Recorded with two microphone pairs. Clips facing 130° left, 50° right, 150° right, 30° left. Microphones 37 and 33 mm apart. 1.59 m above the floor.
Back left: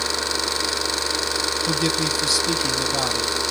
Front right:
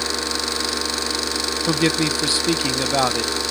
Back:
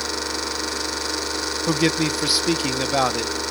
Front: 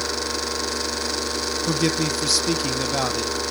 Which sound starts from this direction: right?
A man speaking, at 1.7 s.